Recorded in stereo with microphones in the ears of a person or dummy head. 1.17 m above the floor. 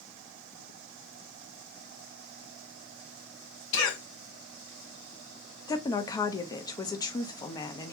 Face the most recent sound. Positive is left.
turn(degrees=20)  # may be behind; listen again after turning